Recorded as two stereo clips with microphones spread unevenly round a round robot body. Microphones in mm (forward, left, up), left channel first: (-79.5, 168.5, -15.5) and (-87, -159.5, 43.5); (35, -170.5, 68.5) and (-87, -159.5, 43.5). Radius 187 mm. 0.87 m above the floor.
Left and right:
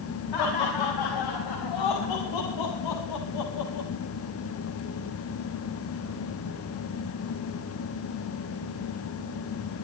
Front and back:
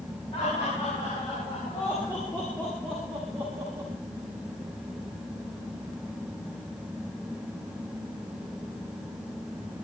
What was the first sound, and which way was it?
Laughter, 65° left.